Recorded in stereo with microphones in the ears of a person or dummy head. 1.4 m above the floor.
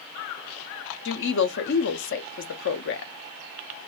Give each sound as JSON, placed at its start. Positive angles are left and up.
{"t": 1.1, "sound": "a woman speaking", "side_deg": 60, "distance_m": 0.6}